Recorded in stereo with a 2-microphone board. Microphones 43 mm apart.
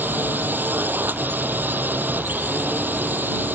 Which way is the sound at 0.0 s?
45° right (ahead or behind).